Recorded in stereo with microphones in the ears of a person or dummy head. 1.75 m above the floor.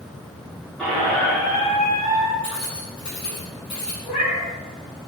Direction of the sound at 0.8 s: 5° left (ahead or behind).